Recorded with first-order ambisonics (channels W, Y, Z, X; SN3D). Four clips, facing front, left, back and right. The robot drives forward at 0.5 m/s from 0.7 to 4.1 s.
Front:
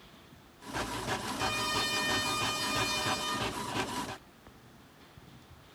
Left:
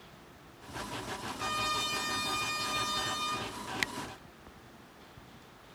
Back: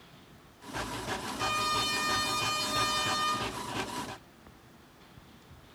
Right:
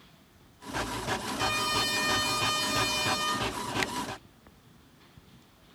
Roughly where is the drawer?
No drawer in this recording.